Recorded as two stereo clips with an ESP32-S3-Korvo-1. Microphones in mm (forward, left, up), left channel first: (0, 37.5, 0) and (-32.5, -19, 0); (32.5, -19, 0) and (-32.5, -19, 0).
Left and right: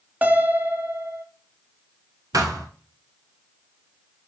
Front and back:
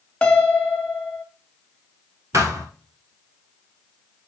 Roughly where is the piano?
Ahead right.